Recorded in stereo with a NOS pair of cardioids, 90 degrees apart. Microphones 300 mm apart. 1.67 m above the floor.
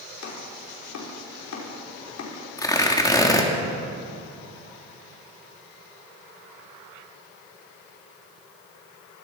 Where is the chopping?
60° left, 5.5 m.